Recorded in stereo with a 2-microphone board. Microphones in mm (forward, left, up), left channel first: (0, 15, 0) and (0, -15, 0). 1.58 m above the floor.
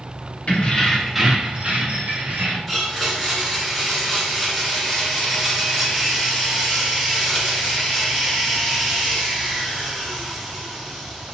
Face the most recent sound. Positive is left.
turn(degrees=5)  # may be behind; listen again after turning